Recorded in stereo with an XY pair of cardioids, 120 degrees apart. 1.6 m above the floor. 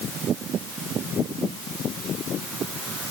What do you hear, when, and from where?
Only background noise.